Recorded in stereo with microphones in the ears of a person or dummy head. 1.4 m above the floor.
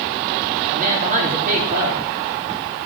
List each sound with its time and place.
0.7 s a woman speaking: 50° right (ahead or behind), 4 m